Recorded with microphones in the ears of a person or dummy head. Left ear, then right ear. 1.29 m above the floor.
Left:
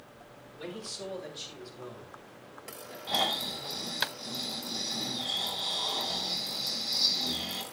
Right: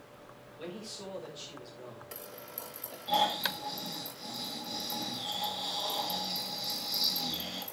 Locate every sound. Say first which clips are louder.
0.6 s a man speaking: left 3 dB; centre (ahead or behind), 5 m; by 3.0 s 15° right (ahead or behind), 4.5 m
3.1 s snoring: right 1 dB; 5° left (ahead or behind), 7 m